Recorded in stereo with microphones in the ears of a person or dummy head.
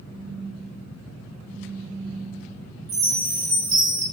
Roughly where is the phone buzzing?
Left.